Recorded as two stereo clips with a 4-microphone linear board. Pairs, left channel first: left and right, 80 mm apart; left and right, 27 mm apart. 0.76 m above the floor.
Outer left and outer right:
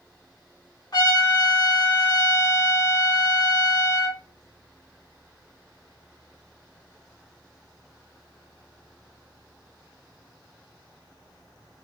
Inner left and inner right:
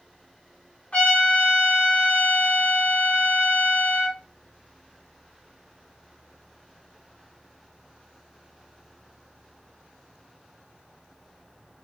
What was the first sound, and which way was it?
A trumpet, 55° left (ahead or behind).